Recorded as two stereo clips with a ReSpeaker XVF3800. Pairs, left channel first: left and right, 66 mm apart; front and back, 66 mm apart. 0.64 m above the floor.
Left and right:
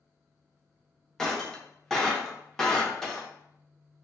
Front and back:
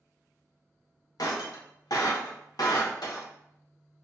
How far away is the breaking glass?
About 0.8 m.